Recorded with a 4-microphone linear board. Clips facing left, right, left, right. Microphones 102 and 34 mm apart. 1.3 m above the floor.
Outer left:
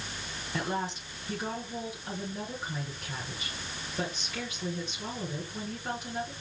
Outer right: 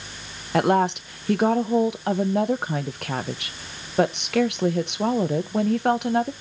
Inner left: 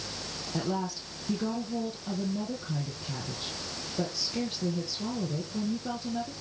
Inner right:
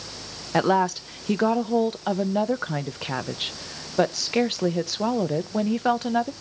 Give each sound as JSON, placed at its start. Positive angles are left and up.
{"t": 0.5, "sound": "a woman speaking", "side_deg": -70, "distance_m": 1.2}